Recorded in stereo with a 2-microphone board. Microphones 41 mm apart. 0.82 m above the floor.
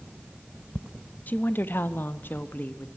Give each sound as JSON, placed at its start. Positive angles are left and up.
{"t": 1.3, "sound": "a woman speaking", "side_deg": 40, "distance_m": 1.0}